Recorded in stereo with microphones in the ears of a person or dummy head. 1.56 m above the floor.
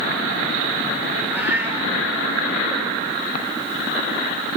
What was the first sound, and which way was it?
A cat meowing, 10° right (ahead or behind).